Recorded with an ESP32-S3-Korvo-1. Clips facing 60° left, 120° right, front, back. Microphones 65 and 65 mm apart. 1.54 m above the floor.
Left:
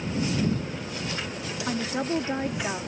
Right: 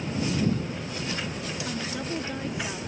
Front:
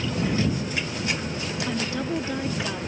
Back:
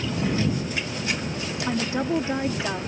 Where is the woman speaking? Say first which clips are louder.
Left 8 dB, back 4 dB; 115° left.